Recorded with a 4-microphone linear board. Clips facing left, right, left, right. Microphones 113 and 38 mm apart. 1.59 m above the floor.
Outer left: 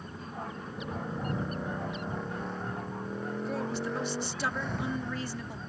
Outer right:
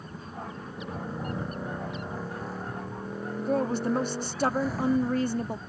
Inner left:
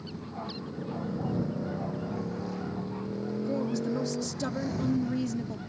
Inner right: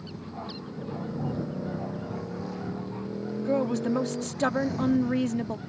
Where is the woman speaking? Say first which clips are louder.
Outer right 9 dB, inner right 5 dB; 45° right (ahead or behind).